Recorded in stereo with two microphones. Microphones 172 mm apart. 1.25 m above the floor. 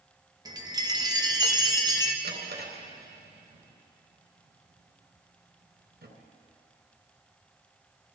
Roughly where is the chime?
Right.